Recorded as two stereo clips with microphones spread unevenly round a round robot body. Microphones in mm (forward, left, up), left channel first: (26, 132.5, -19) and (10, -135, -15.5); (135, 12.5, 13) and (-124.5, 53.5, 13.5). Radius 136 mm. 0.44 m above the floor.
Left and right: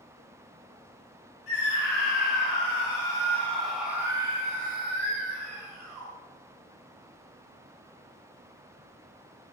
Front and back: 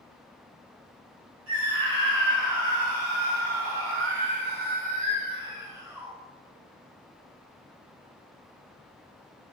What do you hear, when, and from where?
1.5 s a scream: 140° left, 3 m; by 6.1 s 105° right, 2 m